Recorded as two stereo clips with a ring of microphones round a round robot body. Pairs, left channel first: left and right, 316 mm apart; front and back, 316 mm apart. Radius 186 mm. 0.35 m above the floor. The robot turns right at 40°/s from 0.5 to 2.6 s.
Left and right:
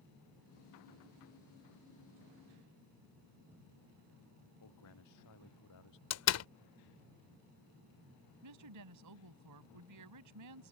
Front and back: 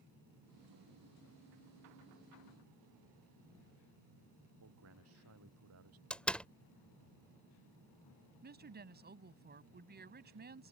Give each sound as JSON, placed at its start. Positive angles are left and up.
{"t": 4.6, "sound": "a man speaking", "azimuth_deg": 130}
{"t": 6.1, "sound": "a door slam", "azimuth_deg": 85}
{"t": 8.4, "sound": "a woman speaking", "azimuth_deg": -120}